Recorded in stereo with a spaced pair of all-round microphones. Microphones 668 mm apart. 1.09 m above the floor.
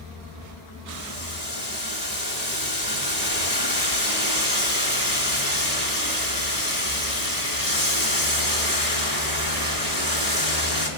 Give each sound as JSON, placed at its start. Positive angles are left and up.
{"t": 0.9, "sound": "boiling", "side_deg": 75, "distance_m": 3.5}